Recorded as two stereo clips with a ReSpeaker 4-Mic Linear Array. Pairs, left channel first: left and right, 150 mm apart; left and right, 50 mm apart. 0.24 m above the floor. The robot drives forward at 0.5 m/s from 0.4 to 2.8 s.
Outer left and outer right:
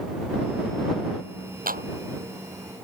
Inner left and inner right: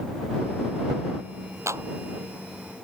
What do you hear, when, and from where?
1.7 s a clap: 70° right (ahead or behind)